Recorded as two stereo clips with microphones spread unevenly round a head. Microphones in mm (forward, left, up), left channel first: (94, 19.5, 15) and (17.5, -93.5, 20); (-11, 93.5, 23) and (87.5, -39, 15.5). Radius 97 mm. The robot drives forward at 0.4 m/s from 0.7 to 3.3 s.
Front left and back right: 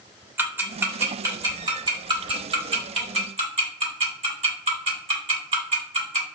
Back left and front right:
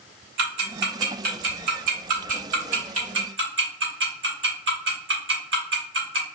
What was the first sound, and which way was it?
Ticking, 55° right.